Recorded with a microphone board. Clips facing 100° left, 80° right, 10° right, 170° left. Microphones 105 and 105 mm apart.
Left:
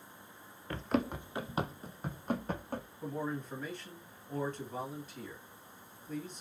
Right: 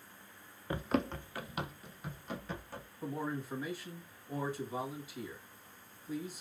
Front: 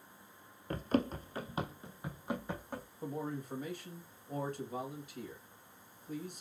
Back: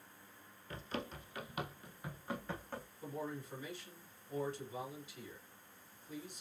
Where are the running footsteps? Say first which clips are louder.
Left 1 dB, front 11 dB; 10° right, 0.5 m; by 2.9 s 65° left, 1.5 m.